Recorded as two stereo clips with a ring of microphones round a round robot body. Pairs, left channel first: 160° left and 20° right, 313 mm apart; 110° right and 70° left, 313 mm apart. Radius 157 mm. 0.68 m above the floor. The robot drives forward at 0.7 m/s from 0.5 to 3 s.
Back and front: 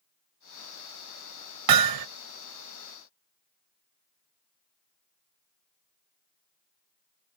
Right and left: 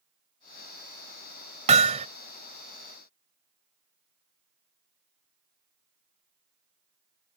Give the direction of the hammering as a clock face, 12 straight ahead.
12 o'clock.